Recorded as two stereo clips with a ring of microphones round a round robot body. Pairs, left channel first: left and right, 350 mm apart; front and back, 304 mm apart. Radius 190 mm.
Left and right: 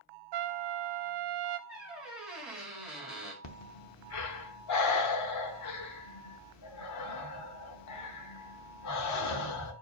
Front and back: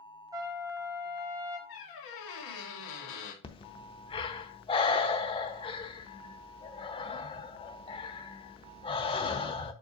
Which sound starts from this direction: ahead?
A squeak, at 1.7 s.